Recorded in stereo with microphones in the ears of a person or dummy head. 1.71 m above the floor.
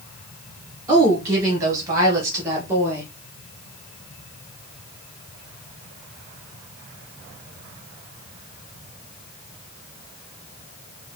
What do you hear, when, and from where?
0.9 s a woman speaking: 20° right (ahead or behind), 3 m; by 3.1 s 10° right (ahead or behind), 2.0 m